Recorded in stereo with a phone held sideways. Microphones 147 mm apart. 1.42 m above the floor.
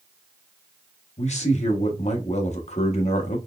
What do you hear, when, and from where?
1.2 s a man speaking: 50° left (ahead or behind), 0.9 m